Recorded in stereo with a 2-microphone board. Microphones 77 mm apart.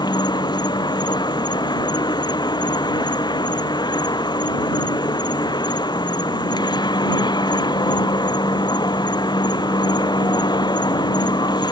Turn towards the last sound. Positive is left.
turn(degrees=60)  # may be behind; listen again after turning